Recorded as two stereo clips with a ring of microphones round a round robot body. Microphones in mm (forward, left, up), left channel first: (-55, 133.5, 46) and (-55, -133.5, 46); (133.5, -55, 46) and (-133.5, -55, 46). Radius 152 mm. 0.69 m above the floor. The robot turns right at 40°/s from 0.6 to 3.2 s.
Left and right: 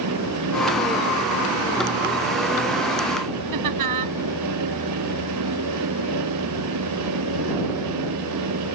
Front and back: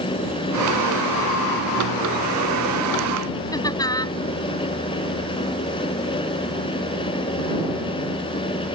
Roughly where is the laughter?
Right.